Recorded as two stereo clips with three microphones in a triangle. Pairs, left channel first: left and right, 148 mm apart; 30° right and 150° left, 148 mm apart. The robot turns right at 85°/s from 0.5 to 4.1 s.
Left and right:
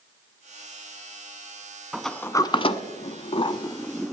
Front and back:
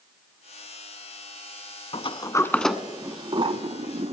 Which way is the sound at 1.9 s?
5° right.